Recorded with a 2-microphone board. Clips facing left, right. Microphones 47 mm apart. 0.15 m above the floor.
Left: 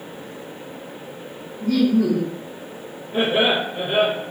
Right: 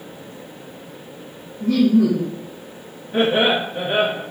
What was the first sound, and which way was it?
Laughter, 35° right (ahead or behind).